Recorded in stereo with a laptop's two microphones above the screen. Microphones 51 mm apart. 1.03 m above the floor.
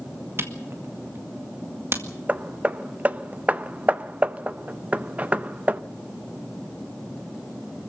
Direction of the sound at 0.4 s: 55° right (ahead or behind).